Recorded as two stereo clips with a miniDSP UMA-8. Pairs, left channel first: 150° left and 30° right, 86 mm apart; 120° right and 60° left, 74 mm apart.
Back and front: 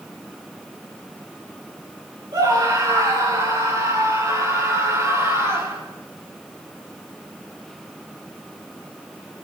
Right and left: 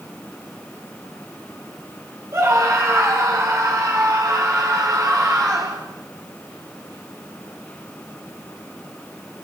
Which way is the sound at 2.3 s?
10° left.